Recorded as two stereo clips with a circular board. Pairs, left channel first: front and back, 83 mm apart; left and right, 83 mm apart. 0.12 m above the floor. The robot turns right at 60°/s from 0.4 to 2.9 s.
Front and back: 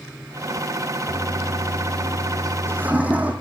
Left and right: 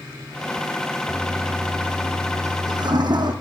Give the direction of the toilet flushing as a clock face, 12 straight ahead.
7 o'clock.